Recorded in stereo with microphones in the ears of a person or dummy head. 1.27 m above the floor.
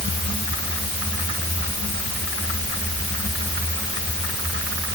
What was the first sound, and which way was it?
Only background noise.